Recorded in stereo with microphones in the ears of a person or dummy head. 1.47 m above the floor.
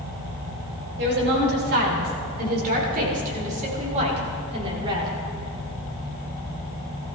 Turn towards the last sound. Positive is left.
turn(degrees=-25)  # may be behind; listen again after turning